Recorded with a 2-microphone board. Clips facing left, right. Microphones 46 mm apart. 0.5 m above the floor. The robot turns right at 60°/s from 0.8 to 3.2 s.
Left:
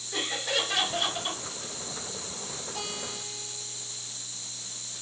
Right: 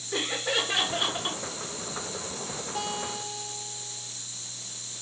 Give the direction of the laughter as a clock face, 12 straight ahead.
4 o'clock.